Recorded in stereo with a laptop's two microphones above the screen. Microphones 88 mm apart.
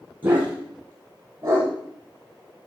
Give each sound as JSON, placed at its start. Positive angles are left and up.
{"t": 0.2, "sound": "a dog barking", "side_deg": -20, "distance_m": 7.0}